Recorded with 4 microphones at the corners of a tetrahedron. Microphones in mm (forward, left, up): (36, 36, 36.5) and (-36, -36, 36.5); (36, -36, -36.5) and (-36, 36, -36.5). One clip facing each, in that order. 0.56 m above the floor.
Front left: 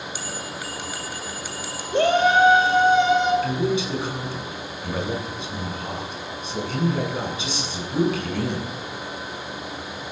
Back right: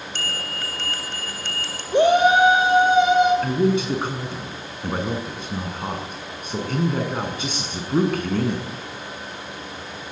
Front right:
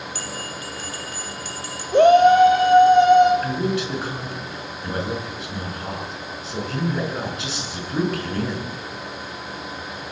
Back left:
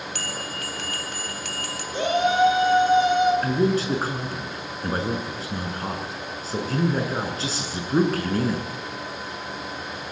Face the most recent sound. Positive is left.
turn(degrees=-175)